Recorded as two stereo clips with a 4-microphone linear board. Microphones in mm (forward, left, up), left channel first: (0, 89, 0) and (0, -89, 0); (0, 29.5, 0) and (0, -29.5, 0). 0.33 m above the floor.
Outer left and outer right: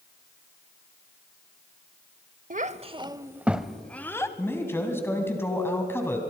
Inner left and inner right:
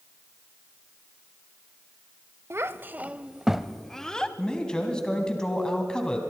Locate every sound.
2.5 s a child speaking: 50° right (ahead or behind), 0.7 m; by 4.3 s 15° left (ahead or behind), 1.1 m
4.4 s a man speaking: 15° left (ahead or behind), 2.5 m